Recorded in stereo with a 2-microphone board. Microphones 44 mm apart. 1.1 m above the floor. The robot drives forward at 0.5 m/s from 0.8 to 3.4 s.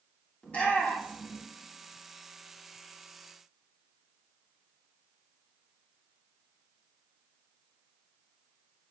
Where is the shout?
30° left (ahead or behind), 2.5 m.